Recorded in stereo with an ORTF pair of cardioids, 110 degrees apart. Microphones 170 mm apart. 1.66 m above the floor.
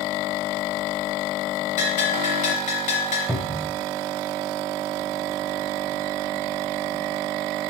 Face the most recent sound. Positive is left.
turn(degrees=0)